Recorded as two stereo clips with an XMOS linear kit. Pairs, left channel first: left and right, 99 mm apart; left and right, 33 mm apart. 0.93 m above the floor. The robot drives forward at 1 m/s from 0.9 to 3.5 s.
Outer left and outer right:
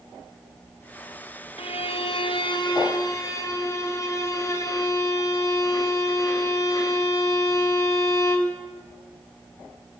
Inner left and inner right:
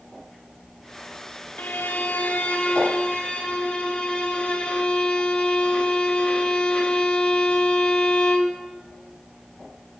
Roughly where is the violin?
Left.